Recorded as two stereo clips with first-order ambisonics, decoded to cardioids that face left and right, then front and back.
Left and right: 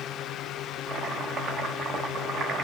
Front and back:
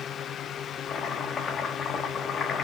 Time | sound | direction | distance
0.9 | chopping | 55° right | 1.3 m